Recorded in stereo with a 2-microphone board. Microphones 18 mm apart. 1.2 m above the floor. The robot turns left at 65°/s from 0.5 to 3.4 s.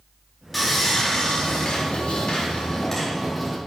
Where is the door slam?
No door slam in this recording.